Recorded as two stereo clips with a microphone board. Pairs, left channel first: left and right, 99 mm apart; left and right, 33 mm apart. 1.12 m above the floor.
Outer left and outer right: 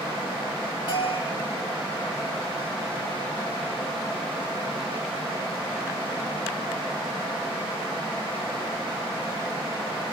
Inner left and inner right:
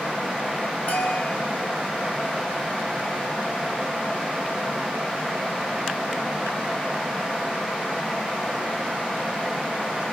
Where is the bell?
55° left (ahead or behind), 5 m.